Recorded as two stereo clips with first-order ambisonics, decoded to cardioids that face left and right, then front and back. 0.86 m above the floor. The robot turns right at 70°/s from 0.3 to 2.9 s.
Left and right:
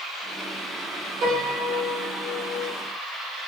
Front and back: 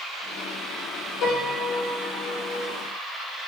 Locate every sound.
1.2 s a piano: 30° right, 1.1 m; by 2.7 s 80° left, 1.1 m